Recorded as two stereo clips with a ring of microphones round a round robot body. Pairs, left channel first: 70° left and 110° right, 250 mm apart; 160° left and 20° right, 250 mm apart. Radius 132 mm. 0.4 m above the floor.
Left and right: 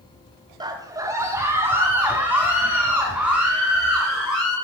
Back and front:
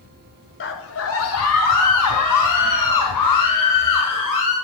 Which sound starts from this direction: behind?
A scream, at 0.6 s.